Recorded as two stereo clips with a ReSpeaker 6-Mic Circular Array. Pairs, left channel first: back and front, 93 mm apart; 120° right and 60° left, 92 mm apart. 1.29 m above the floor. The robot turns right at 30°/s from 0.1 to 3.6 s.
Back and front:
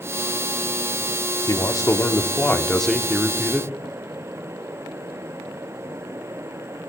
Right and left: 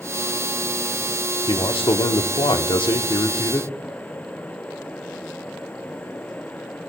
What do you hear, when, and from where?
1.5 s a man speaking: 135° right, 0.8 m; by 3.7 s 75° right, 0.8 m